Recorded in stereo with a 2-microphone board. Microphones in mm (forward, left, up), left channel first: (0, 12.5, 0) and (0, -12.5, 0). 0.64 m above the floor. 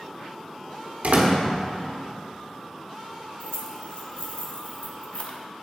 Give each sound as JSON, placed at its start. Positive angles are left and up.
{"t": 1.0, "sound": "a door slam", "side_deg": -60, "distance_m": 1.3}
{"t": 3.4, "sound": "keys jangling", "side_deg": 45, "distance_m": 0.9}